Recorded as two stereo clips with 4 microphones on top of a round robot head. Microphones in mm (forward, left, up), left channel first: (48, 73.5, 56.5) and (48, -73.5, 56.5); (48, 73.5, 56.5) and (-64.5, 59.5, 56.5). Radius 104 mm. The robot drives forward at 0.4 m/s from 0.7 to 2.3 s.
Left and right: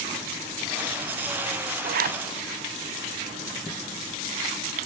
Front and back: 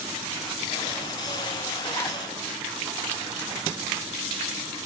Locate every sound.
1.8 s a zipper: 60° right, 0.6 m; by 2.2 s 75° right, 0.5 m